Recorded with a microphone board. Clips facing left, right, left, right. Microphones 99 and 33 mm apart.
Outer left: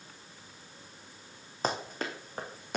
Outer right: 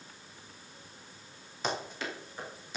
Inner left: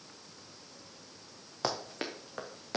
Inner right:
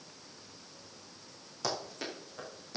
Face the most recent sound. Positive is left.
turn(degrees=60)  # may be behind; listen again after turning